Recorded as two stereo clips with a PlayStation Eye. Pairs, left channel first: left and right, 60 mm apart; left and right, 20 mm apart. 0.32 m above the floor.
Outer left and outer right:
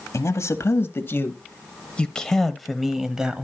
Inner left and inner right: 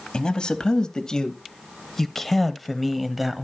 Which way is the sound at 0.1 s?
55° left (ahead or behind).